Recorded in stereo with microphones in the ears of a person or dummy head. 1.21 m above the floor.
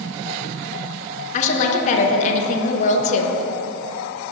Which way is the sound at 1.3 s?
40° left (ahead or behind).